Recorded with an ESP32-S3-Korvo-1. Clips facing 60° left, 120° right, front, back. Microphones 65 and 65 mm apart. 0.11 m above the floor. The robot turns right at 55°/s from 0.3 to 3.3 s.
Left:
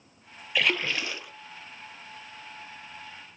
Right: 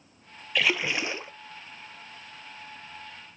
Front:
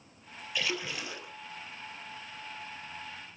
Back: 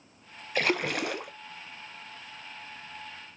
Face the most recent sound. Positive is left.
turn(degrees=-60)